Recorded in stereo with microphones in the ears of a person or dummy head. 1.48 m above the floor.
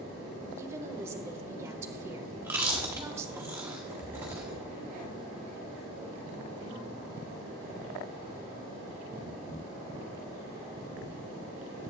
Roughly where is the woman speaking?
Centre.